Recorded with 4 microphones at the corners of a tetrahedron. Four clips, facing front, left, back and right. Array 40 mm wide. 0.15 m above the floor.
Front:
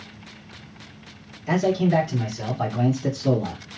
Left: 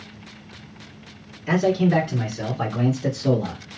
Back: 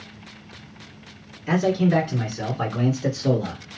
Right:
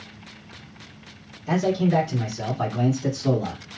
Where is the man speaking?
125° left, 1.5 m; by 3.6 s straight behind, 1.9 m.